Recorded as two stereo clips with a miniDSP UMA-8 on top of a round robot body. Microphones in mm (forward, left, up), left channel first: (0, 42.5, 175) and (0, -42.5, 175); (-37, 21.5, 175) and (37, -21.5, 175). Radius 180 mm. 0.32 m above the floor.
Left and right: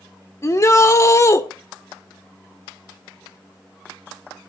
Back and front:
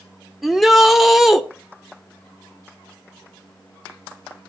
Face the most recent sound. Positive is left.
turn(degrees=55)